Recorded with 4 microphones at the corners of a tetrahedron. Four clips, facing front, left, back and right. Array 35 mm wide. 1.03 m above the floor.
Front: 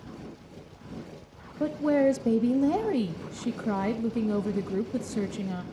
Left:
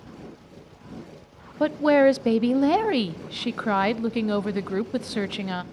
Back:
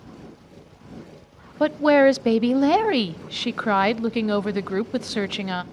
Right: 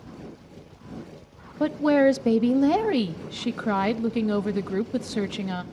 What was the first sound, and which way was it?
A woman speaking, 165° left.